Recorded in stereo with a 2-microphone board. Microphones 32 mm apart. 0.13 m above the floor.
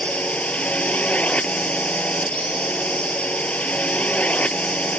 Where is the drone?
55° left (ahead or behind).